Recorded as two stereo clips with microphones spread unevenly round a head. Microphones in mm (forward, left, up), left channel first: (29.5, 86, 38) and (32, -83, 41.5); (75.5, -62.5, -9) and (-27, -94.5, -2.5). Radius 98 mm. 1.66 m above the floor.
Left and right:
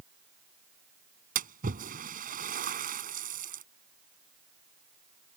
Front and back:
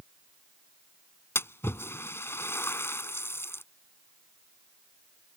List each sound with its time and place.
1.4 s a splash: 50° right